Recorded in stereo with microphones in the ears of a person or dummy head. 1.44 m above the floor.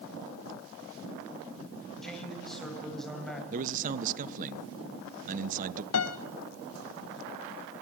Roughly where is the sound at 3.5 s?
Right.